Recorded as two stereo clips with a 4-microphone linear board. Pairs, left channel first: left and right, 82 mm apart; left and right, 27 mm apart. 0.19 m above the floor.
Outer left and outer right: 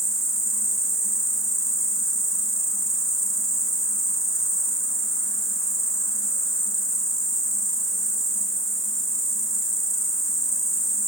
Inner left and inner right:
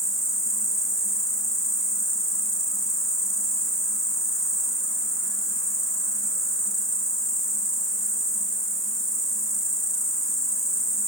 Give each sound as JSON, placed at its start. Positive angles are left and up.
{"t": 0.0, "sound": "an insect", "side_deg": 0, "distance_m": 0.8}